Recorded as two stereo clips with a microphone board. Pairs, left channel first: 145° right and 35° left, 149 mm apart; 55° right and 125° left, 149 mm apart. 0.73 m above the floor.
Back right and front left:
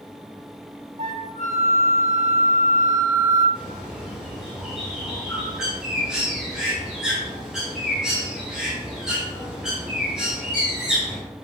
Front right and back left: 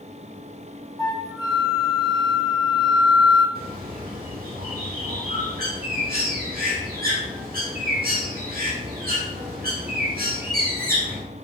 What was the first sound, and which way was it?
A flute, 5° left.